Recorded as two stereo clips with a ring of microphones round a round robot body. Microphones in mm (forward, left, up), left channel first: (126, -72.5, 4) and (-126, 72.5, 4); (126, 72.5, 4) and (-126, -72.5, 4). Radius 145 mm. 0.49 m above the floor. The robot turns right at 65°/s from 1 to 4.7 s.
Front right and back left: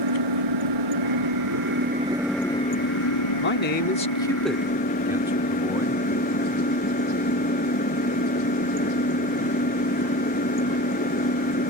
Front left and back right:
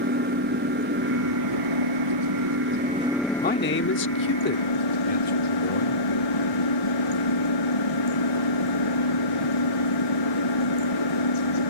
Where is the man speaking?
15° right; by 6.0 s 70° left.